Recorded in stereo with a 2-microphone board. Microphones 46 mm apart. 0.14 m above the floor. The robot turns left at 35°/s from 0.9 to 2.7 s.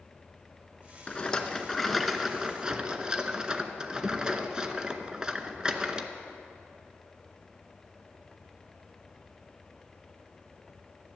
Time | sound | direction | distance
1.1 | a rattle | 30° left | 0.7 m